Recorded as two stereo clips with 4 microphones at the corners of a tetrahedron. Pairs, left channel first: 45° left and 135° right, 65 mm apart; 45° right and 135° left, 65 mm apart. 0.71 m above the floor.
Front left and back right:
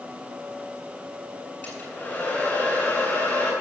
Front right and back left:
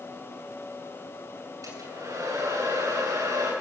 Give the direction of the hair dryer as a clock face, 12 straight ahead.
8 o'clock.